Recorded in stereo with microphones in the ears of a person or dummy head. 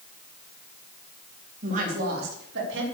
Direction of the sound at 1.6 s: 50° right (ahead or behind).